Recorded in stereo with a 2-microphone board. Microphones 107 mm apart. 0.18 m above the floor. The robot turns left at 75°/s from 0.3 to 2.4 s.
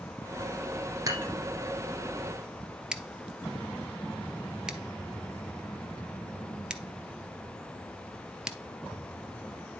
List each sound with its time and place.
1.1 s dishes clattering: 30° right (ahead or behind), 3 m; by 1.3 s 15° right (ahead or behind), 3 m
2.9 s scissors: 5° right (ahead or behind), 0.9 m